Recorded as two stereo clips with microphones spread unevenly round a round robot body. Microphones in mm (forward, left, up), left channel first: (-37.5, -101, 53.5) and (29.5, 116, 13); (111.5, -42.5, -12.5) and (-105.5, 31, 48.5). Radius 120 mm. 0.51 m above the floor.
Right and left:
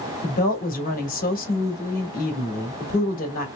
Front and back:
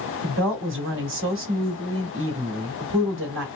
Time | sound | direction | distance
0.2 | a woman speaking | 160° right | 1.6 m